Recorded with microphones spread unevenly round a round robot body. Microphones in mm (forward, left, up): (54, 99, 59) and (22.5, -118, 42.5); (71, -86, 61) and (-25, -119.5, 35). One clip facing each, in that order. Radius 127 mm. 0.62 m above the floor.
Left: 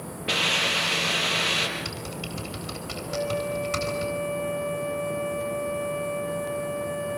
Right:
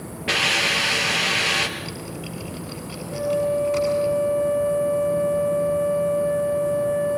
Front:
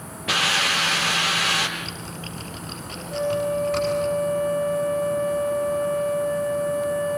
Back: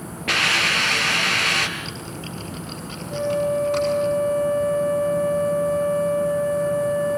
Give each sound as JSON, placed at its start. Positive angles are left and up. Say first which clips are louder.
{"t": 0.3, "sound": "a hiss", "louder": "right 3 dB, back 1 dB", "azimuth_deg": -135, "distance_m": 4.0}
{"t": 1.8, "sound": "typing on a keyboard", "louder": "right 2 dB, back 2 dB", "azimuth_deg": 125, "distance_m": 8.0}
{"t": 3.1, "sound": "a flute", "louder": "right 6 dB, back 2 dB", "azimuth_deg": 125, "distance_m": 8.5}